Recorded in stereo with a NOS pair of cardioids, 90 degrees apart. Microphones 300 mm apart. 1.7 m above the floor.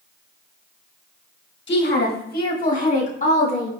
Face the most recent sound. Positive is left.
turn(degrees=20)